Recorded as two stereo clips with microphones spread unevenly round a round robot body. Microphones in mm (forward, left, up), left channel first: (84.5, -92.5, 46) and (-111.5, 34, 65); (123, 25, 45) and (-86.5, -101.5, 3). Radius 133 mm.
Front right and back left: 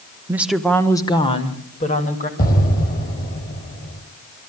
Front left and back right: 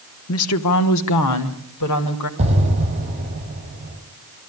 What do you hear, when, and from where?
0.3 s a woman speaking: 65° left, 1.1 m; by 2.3 s 25° left, 3 m
2.4 s an explosion: 85° right, 5 m